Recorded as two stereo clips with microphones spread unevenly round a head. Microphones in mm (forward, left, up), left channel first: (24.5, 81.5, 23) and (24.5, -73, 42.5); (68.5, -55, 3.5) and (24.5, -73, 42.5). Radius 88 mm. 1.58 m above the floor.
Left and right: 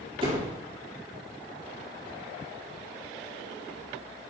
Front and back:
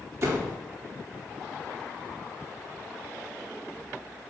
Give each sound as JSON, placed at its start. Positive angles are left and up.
{"t": 0.2, "sound": "a door slam", "azimuth_deg": -150, "distance_m": 3.0}